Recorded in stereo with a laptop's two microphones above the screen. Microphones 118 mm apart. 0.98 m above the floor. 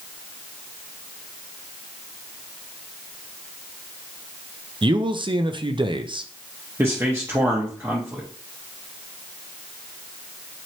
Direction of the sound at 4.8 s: 45° right (ahead or behind).